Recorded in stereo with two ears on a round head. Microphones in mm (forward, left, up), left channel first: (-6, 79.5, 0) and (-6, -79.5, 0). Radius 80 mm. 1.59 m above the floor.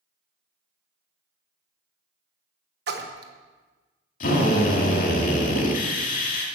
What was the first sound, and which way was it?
A splash, 65° right (ahead or behind).